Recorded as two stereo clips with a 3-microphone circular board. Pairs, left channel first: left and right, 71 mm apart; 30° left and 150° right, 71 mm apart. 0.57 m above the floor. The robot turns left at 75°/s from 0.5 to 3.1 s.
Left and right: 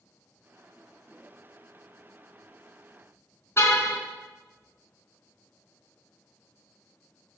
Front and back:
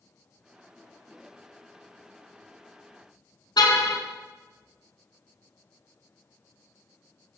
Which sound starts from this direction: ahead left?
A car horn, at 3.6 s.